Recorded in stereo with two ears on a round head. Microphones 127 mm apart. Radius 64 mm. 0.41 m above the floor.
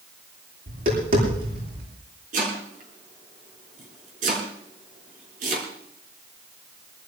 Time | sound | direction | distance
0.7 | tapping | 80° right | 9 m
2.3 | chopping | 50° right (ahead or behind) | 5.5 m